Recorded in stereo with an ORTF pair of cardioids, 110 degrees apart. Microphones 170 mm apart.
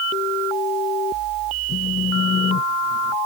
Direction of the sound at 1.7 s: 45° left.